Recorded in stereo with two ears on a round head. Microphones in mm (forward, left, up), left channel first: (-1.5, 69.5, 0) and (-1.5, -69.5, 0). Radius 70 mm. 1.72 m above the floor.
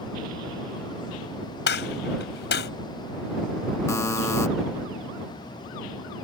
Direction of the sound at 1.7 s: 75° left (ahead or behind).